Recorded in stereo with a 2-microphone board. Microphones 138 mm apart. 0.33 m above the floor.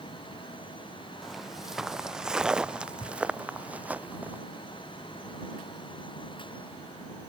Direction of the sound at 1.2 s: Centre (ahead or behind).